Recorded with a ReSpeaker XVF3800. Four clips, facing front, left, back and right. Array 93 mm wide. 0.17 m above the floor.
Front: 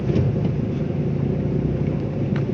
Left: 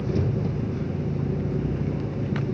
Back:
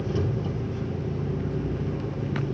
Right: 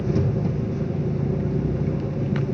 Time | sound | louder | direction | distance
0.0 | an engine running | right 3 dB, front 6 dB | 10° right | 1.5 m